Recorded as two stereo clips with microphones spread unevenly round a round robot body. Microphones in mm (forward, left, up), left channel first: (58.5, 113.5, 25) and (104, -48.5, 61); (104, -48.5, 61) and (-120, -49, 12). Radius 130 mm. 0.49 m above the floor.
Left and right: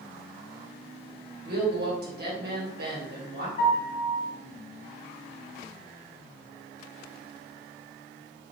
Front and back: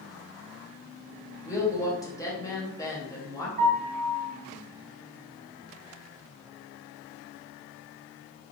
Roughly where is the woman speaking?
Right.